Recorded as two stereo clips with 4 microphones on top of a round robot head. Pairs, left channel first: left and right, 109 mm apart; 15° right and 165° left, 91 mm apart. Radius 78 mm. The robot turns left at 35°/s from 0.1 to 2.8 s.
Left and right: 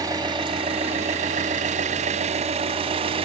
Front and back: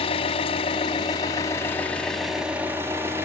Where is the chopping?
I don't hear chopping.